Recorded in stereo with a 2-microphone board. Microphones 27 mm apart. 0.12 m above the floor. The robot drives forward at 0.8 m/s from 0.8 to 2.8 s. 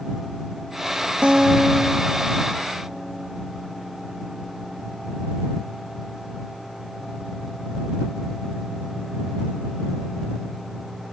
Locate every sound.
1.2 s a guitar: 40° right (ahead or behind), 1.0 m; by 3.3 s 15° right (ahead or behind), 2 m